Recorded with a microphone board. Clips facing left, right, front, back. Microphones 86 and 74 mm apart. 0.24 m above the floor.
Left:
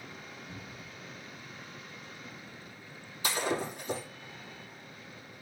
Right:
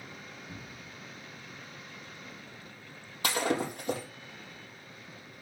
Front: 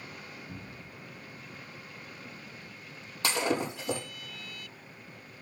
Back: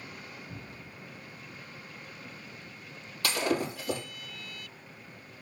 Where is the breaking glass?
65° right, 5 m.